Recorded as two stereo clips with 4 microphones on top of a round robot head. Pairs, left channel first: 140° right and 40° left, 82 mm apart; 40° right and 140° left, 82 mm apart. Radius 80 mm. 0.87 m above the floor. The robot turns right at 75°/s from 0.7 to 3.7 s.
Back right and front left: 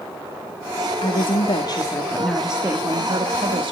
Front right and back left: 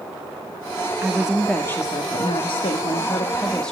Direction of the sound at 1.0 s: 155° right.